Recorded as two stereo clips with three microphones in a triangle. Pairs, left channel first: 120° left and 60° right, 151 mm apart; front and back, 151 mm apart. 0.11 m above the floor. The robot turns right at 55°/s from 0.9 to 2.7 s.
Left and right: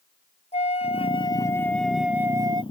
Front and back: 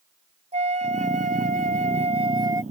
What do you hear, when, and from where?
0.5 s a flute: 155° left; by 2.6 s 110° right